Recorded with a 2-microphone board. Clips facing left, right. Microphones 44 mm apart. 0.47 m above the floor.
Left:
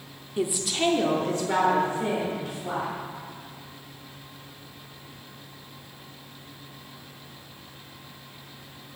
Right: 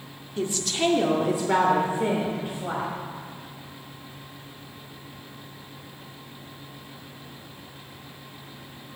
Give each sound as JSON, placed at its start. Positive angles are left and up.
{"t": 0.4, "sound": "a woman speaking", "side_deg": 20, "distance_m": 0.7}